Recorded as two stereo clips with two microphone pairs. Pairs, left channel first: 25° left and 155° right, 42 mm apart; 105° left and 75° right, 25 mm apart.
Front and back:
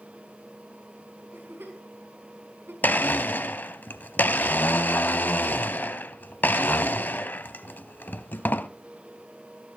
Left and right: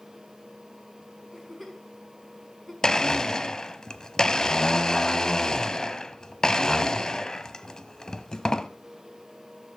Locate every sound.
1.3 s a giggle: 170° right, 5 m
2.8 s a blender: 50° left, 0.7 m